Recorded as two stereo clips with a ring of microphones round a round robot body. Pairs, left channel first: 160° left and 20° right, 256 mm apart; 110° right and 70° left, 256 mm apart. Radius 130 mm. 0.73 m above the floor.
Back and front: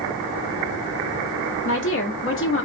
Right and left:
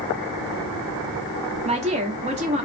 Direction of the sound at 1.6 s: 130° left.